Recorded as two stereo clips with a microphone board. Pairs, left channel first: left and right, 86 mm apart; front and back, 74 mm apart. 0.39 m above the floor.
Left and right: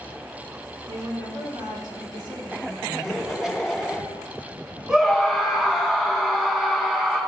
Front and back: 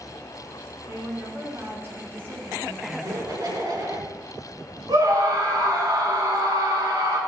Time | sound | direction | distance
0.9 | a woman speaking | 120° right | 4.5 m
2.9 | laughter | 175° right | 4 m
4.9 | a scream | 170° right | 3.5 m